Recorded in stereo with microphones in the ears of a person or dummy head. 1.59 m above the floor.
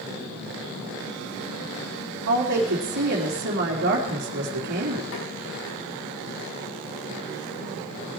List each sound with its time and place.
2.3 s a woman speaking: 60° right (ahead or behind), 3.5 m
5.1 s tapping: 80° left, 6 m